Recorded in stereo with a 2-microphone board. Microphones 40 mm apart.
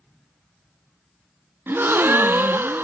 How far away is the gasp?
About 1.0 m.